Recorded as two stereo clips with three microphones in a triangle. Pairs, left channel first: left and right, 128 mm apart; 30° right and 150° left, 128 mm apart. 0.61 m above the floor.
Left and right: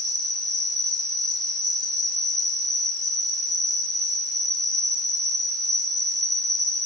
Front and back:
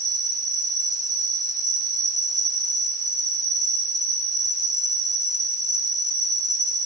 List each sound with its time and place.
0.0 s an insect: 150° right, 3 m